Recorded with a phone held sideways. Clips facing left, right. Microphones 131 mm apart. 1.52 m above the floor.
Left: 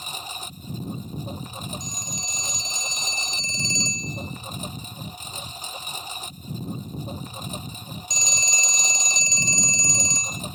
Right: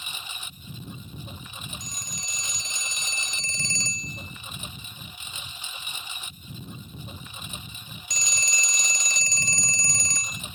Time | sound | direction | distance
0.0 | a lawn mower | 40° left (ahead or behind) | ?
1.8 | a phone ringing | 20° left (ahead or behind) | ?